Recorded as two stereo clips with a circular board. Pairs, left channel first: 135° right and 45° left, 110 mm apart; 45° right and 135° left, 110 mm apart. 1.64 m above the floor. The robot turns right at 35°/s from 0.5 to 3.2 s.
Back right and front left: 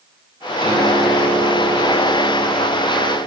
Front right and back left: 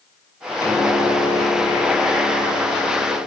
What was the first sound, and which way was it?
A piano, 15° left.